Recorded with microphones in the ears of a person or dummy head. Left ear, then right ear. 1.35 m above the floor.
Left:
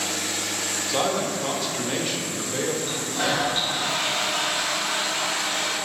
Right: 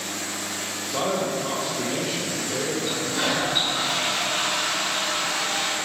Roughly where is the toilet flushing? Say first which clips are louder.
Right 1 dB; right.